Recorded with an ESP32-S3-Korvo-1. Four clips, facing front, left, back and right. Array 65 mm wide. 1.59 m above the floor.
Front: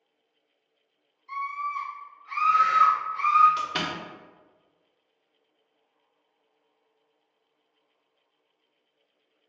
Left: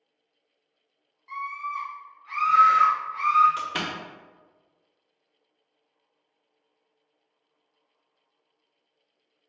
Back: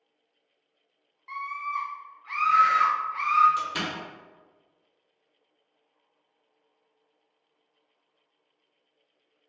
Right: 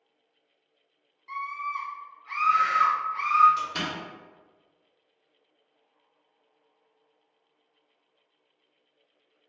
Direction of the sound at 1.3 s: 175° right.